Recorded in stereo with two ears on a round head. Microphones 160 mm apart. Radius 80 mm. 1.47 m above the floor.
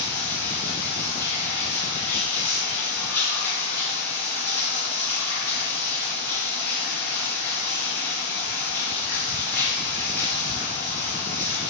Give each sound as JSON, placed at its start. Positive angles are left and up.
{"t": 0.0, "sound": "running water", "side_deg": 15, "distance_m": 4.0}